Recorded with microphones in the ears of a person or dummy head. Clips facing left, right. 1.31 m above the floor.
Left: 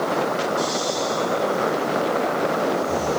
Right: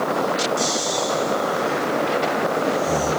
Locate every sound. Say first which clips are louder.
0.6 s snoring: even; 45° right (ahead or behind), 7 m